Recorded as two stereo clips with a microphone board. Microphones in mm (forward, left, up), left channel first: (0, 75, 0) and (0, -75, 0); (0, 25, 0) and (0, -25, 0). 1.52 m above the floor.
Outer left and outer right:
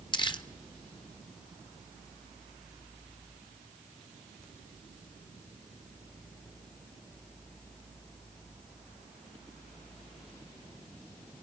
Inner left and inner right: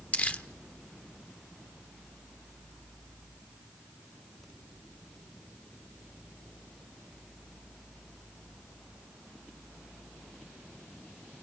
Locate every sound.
0.1 s crumpling: 30° left (ahead or behind), 1.1 m